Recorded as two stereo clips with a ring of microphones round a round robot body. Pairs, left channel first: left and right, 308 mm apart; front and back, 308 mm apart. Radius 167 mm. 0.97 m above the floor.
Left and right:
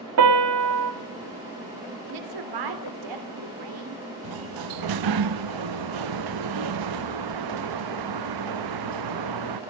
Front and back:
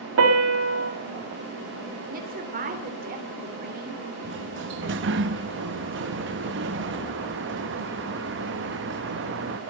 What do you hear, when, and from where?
0.2 s a piano: 130° right, 2.5 m
2.1 s a woman speaking: 115° right, 3.5 m
4.2 s a sliding door: 120° right, 0.7 m